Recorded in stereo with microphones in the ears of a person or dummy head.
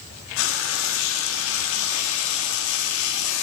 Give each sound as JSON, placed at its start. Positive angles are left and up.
{"t": 0.4, "sound": "frying", "side_deg": 70, "distance_m": 1.9}